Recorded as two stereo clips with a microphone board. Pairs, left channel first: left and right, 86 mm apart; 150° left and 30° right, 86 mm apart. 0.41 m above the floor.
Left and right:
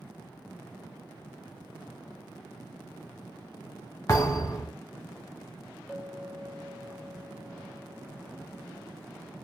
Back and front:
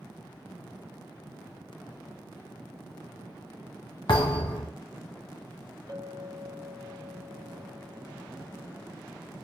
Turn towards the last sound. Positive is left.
turn(degrees=5)